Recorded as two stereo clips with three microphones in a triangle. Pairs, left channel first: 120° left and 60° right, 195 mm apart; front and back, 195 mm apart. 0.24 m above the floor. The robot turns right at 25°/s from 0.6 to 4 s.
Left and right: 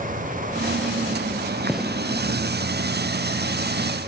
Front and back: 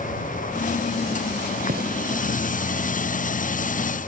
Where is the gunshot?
150° right; by 1.9 s 145° right.